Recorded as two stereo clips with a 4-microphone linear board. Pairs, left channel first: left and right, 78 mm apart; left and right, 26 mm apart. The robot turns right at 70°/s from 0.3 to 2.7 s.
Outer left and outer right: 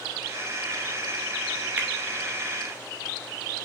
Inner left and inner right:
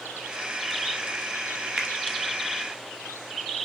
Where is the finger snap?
20° right (ahead or behind), 1.4 m; by 1.9 s 25° right (ahead or behind), 1.4 m.